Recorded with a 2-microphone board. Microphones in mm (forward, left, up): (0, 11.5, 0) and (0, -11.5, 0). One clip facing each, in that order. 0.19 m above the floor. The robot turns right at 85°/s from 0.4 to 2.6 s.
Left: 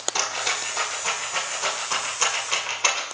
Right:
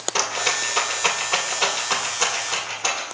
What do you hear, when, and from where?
0.1 s a rattle: 25° right (ahead or behind), 2 m; by 3.0 s 30° left (ahead or behind), 2 m